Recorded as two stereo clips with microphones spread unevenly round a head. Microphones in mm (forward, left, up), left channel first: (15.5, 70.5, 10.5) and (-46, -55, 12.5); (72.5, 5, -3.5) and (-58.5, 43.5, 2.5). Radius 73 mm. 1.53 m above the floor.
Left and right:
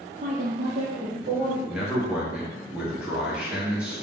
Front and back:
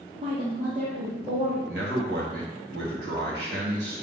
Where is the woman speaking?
150° right, 0.5 m; by 1.6 s 155° right, 2 m.